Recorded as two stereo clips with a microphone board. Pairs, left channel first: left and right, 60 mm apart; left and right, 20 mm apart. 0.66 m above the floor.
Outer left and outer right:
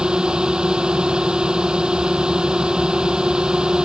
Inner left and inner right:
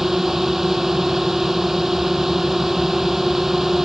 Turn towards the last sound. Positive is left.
turn(degrees=-15)  # may be behind; listen again after turning